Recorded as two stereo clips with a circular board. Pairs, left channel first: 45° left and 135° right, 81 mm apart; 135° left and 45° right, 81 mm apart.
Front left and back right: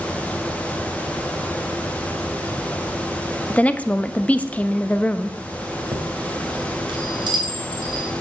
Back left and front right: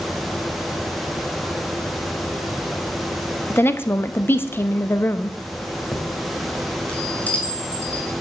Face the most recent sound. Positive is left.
turn(degrees=-155)